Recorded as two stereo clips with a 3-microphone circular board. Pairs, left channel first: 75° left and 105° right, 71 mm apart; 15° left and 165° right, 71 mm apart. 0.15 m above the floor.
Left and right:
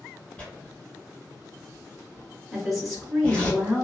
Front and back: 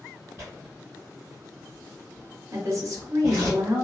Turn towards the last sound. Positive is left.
turn(degrees=165)